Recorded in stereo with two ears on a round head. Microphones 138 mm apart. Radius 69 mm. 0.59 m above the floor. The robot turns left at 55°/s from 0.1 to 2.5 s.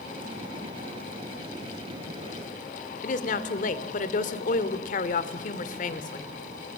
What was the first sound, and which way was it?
A woman speaking, 55° left (ahead or behind).